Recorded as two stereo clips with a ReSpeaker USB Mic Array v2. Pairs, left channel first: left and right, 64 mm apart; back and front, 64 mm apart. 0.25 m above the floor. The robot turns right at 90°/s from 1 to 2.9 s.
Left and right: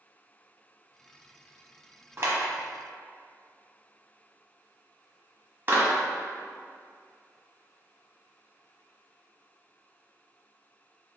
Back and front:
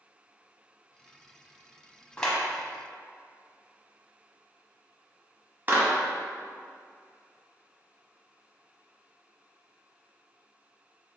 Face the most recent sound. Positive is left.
turn(degrees=-50)